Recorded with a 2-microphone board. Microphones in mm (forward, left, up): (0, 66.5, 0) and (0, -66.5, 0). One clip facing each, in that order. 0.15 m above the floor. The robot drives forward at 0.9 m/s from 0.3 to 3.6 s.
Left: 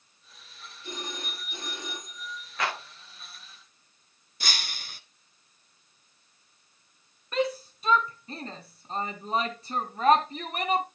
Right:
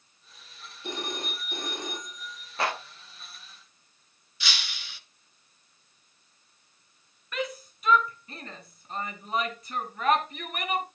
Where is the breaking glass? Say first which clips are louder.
Left 2 dB; 45° left (ahead or behind), 0.9 m.